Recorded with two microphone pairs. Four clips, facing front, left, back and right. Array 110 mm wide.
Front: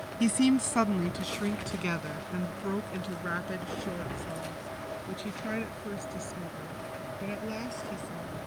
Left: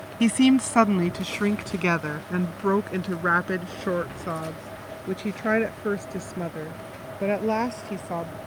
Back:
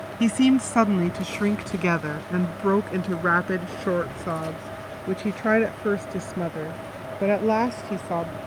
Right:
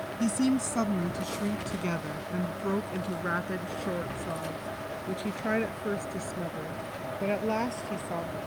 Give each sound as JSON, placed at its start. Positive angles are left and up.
{"t": 0.2, "sound": "a woman speaking", "azimuth_deg": 105}